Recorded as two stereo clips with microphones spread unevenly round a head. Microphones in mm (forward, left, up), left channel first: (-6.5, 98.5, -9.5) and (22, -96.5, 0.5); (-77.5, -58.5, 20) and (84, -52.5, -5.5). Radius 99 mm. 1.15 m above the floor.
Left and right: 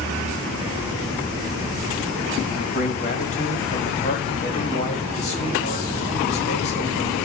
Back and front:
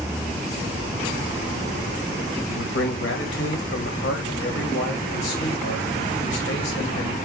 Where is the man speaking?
155° left, 2.5 m.